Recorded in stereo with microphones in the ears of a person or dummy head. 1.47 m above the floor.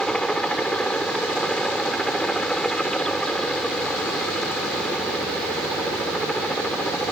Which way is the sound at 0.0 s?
Centre (ahead or behind).